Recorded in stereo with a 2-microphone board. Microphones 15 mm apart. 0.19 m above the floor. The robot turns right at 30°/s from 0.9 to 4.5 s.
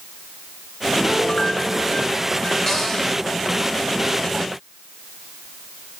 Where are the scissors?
I don't hear scissors.